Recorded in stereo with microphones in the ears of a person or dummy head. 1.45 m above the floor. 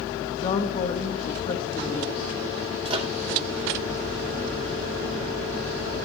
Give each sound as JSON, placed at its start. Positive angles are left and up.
{"t": 0.4, "sound": "a woman speaking", "side_deg": 30, "distance_m": 1.6}
{"t": 2.9, "sound": "a microwave", "side_deg": -35, "distance_m": 1.8}